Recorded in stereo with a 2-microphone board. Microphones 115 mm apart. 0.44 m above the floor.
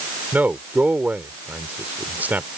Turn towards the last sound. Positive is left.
turn(degrees=-15)  # may be behind; listen again after turning